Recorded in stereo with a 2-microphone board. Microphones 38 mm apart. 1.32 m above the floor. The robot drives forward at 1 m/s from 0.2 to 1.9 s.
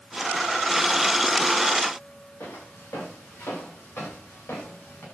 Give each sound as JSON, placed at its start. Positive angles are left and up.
{"t": 2.4, "sound": "footsteps", "side_deg": 80, "distance_m": 8.0}